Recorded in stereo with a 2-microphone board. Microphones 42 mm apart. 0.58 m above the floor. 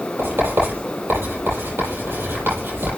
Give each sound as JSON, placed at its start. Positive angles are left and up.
{"t": 0.2, "sound": "writing", "side_deg": -60, "distance_m": 7.0}